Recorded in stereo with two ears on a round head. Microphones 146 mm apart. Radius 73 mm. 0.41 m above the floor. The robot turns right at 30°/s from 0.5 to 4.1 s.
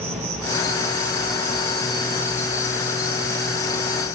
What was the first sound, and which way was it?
An insect, 40° right.